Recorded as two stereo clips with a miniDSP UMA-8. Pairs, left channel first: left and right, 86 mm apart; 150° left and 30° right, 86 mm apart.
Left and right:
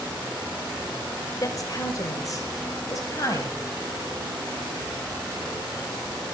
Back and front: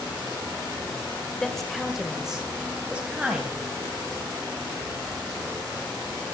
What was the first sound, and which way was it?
A woman speaking, 65° left.